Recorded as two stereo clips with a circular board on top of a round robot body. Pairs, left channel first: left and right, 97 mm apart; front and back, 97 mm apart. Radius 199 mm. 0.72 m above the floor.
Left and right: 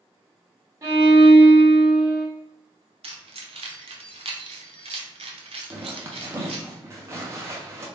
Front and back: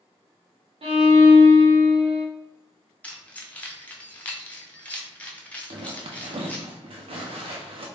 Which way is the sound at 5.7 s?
150° right.